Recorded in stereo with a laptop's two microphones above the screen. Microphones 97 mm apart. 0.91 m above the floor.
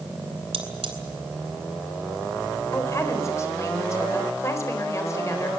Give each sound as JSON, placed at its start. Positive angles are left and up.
{"t": 0.5, "sound": "cutlery clinking", "side_deg": -75, "distance_m": 3.0}
{"t": 2.7, "sound": "a woman speaking", "side_deg": 30, "distance_m": 3.5}